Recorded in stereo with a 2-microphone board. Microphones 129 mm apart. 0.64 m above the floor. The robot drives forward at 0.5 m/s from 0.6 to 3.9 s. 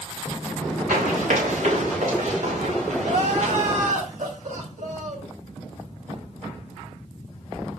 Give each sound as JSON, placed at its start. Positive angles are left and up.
{"t": 0.9, "sound": "running footsteps", "side_deg": -70, "distance_m": 5.5}
{"t": 3.0, "sound": "crying", "side_deg": -75, "distance_m": 3.5}